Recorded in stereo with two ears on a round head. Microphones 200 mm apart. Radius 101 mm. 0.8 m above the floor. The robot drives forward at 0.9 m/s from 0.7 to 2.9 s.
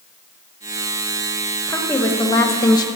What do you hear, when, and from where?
1.7 s a woman speaking: 10° left (ahead or behind), 1.4 m; by 2.9 s 20° left (ahead or behind), 0.7 m